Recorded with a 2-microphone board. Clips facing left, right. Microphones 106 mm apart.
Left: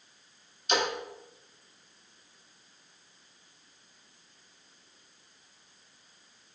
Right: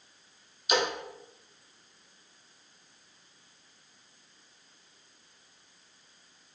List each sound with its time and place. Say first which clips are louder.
0.7 s a splash: right 1 dB; 10° right (ahead or behind), 0.8 m